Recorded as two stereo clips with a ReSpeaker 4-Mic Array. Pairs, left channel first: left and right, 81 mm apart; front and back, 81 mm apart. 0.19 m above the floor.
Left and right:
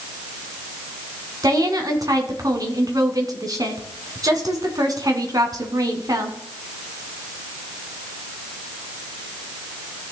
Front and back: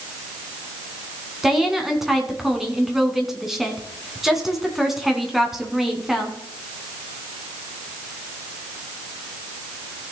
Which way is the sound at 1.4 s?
95° right.